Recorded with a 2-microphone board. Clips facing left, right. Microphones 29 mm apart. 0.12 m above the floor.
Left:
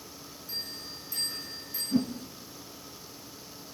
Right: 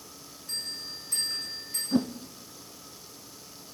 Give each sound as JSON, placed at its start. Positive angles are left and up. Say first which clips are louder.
{"t": 0.5, "sound": "a bell", "louder": "right 3 dB", "side_deg": -55, "distance_m": 5.5}
{"t": 1.9, "sound": "a whoosh", "louder": "right 1 dB", "side_deg": -65, "distance_m": 0.7}